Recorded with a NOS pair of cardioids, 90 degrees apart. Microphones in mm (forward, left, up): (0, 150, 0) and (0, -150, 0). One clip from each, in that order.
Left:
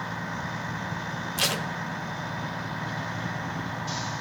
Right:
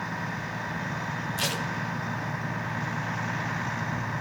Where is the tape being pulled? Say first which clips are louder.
Left 4 dB; 25° left, 1.1 m.